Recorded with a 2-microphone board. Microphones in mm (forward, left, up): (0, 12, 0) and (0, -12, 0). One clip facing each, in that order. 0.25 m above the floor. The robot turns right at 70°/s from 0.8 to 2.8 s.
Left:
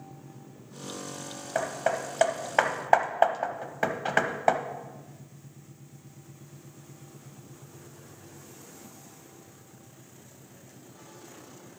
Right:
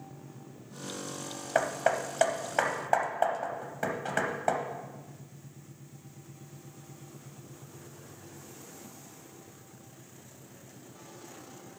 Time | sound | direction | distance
1.6 | hammering | 15° right (ahead or behind) | 0.6 m